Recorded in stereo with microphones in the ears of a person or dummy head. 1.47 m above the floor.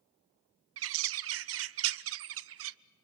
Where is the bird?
60° right (ahead or behind), 0.5 m.